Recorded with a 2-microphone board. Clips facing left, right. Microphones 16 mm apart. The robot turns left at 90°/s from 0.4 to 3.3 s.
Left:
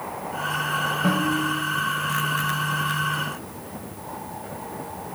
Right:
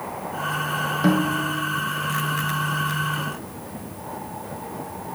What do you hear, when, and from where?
1.0 s a snare drum: 95° right, 2.5 m; by 1.6 s 140° right, 2.5 m